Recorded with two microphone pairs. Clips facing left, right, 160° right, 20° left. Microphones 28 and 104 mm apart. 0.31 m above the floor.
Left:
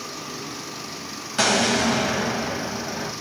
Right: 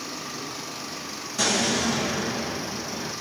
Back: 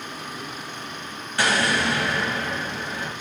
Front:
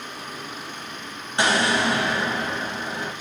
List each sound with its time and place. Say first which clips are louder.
1.4 s an explosion: left 4 dB, front 1 dB; 80° left, 0.7 m